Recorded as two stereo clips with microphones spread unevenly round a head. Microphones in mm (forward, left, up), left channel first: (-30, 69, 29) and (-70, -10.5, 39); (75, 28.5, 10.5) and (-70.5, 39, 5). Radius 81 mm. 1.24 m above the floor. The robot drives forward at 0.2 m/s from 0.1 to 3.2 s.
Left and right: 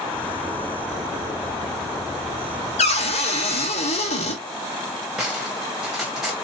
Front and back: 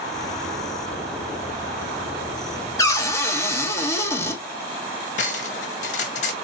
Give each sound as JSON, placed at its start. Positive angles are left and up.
{"t": 2.8, "sound": "a cupboard door", "azimuth_deg": 65, "distance_m": 1.1}
{"t": 5.2, "sound": "cutlery clinking", "azimuth_deg": -35, "distance_m": 0.6}